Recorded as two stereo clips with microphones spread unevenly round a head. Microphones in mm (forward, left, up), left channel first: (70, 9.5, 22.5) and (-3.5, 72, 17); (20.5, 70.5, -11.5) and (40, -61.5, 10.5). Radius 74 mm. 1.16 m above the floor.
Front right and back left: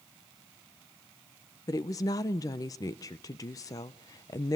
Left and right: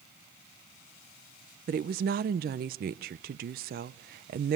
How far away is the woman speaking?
About 0.5 m.